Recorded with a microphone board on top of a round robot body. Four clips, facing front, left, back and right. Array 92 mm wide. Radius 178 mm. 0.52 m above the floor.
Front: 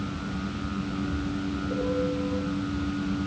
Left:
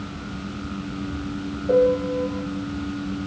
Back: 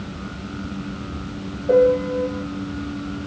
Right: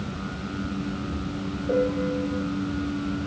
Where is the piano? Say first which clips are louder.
Left 6 dB, back 14 dB; 165° left, 3 m.